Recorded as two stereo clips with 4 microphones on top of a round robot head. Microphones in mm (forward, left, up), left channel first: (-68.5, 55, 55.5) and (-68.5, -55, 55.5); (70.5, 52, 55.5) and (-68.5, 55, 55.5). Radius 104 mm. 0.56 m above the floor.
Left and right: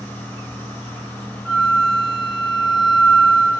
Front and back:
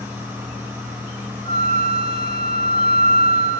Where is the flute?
175° right, 2.5 m.